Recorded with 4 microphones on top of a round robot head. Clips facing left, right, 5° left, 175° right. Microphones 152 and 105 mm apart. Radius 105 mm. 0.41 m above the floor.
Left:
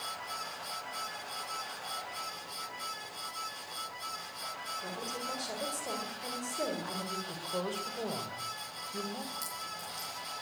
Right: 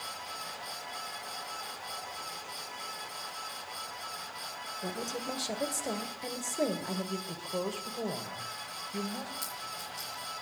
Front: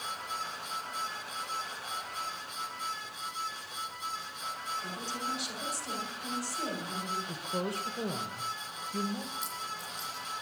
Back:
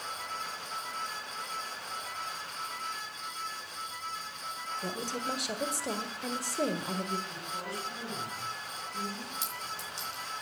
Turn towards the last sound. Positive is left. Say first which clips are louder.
# right 1 dB, even
turn(degrees=175)